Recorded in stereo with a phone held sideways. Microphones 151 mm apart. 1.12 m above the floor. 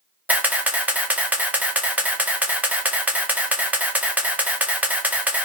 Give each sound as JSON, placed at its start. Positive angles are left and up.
{"t": 0.3, "sound": "a camera shutter", "side_deg": -10, "distance_m": 0.5}